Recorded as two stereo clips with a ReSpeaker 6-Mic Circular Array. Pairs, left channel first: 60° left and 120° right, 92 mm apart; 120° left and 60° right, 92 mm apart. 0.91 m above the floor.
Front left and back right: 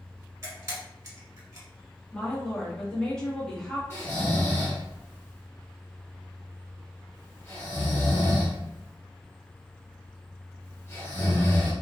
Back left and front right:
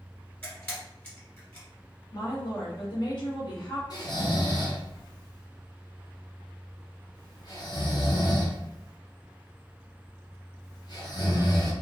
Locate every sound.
0.4 s a camera shutter: 175° right, 1.9 m
2.1 s a woman speaking: 140° left, 1.2 m
3.9 s snoring: 110° left, 1.1 m